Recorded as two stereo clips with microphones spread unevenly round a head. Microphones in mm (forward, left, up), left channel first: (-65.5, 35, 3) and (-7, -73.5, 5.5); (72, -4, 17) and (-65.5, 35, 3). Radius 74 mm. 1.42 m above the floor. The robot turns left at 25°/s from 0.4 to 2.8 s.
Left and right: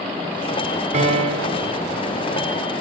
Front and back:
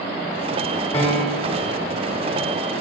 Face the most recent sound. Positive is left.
turn(degrees=-140)